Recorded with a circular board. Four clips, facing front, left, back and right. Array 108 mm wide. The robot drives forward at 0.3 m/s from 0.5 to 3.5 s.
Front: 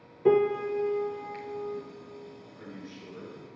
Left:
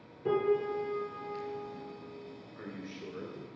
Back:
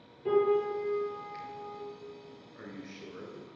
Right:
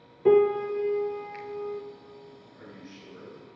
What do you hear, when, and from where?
0.2 s a piano: 45° right, 0.6 m; by 1.8 s 90° right, 0.5 m
2.5 s a man speaking: 140° left, 1.4 m; by 3.5 s 150° left, 1.6 m